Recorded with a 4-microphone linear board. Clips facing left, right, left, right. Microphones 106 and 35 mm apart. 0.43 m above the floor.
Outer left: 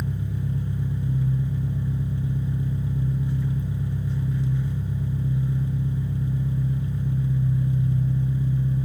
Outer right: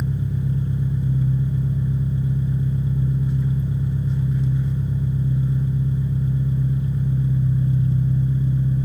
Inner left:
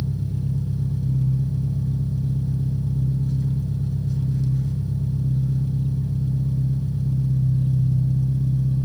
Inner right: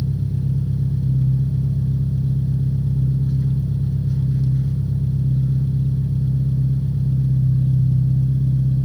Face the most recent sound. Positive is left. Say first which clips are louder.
# outer right 4 dB, inner right 3 dB
turn(degrees=-20)  # may be behind; listen again after turning